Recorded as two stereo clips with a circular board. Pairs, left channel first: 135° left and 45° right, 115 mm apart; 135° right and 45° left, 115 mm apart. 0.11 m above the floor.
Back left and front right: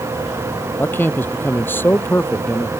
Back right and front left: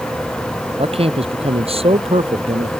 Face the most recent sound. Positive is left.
turn(degrees=65)